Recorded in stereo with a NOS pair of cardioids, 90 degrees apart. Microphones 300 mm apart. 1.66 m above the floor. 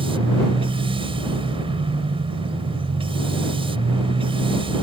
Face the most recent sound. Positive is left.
turn(degrees=-20)